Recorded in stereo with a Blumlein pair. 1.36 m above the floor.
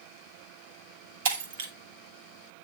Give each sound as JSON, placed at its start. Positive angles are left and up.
{"t": 1.2, "sound": "breaking glass", "azimuth_deg": -60, "distance_m": 1.4}